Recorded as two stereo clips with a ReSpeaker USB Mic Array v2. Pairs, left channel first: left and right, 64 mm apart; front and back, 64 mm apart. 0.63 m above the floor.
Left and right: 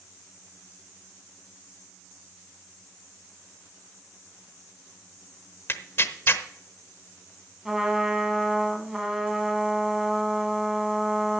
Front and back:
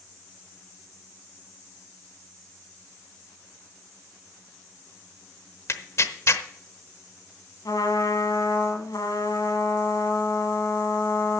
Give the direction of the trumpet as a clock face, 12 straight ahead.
12 o'clock.